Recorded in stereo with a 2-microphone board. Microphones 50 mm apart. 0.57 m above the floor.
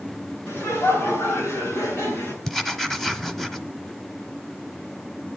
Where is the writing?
5° left (ahead or behind), 1.0 m.